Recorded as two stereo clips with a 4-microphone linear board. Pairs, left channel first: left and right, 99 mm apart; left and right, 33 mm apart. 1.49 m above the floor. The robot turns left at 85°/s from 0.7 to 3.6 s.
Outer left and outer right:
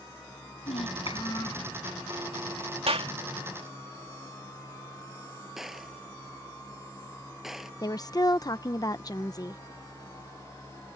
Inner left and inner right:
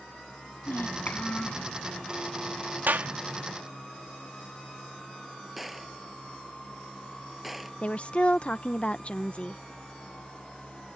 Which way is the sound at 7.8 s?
40° left (ahead or behind).